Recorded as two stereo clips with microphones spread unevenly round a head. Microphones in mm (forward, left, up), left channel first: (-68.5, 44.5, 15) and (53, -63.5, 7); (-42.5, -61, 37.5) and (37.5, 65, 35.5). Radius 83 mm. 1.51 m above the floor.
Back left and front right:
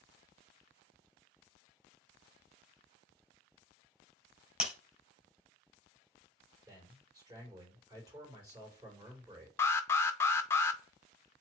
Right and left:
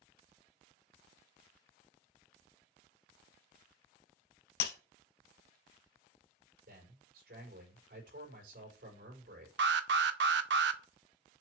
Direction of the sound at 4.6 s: 130° right.